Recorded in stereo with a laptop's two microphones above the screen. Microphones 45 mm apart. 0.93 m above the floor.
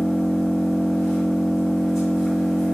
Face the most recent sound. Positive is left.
turn(degrees=-5)  # may be behind; listen again after turning